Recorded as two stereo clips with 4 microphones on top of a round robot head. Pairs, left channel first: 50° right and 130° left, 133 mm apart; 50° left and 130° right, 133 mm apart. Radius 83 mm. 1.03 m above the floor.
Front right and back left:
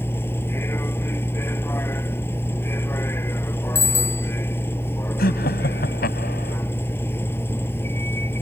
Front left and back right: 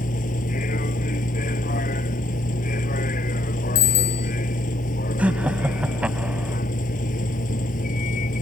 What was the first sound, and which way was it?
A vehicle, 25° left.